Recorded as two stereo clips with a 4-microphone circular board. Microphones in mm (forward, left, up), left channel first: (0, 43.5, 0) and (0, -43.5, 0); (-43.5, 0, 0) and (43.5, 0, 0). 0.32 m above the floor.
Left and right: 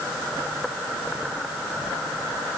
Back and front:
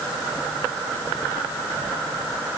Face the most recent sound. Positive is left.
No sound to turn to.